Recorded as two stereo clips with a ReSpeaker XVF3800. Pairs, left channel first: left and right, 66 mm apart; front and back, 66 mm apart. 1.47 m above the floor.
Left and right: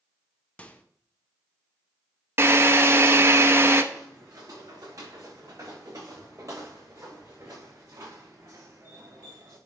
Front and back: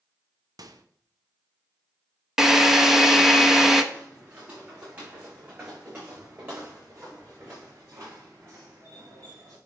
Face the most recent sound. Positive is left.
turn(degrees=-140)